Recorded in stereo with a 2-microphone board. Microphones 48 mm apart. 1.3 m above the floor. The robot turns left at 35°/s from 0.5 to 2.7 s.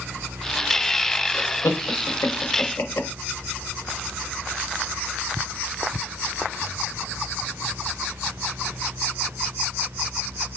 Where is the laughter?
80° left, 1.0 m; by 3.1 s 50° left (ahead or behind), 1.0 m.